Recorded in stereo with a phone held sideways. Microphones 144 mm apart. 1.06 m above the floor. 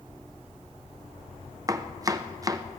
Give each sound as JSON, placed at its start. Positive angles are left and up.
{"t": 1.7, "sound": "chopping", "side_deg": -25, "distance_m": 0.5}